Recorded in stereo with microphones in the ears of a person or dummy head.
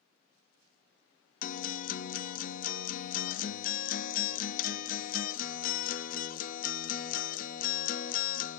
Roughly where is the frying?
No frying in this recording.